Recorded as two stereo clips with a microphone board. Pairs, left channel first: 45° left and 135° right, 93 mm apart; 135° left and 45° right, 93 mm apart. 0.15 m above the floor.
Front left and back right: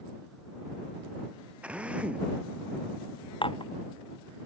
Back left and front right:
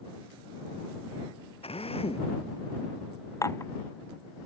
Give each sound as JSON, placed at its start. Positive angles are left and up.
{"t": 1.6, "sound": "a drill", "azimuth_deg": 145}
{"t": 3.4, "sound": "dishes clattering", "azimuth_deg": 75}